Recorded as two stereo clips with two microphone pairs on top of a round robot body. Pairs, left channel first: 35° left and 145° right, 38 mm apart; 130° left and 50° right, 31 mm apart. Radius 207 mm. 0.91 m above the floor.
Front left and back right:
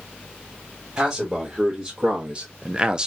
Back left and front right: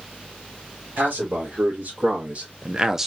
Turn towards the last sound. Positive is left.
turn(degrees=-155)